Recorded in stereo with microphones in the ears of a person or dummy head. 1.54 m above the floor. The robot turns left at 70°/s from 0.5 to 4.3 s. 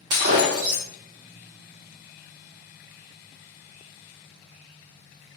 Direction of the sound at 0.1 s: 30° right (ahead or behind).